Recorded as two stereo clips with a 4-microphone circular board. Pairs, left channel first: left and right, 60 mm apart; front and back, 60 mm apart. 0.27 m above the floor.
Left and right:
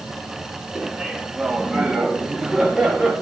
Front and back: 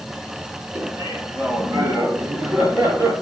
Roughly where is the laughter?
Behind.